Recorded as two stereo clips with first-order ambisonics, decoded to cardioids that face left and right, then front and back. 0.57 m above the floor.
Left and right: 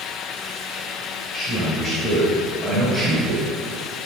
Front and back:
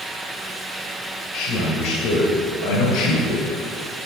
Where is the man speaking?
30° left, 2.5 m; by 3.4 s 10° left, 3 m.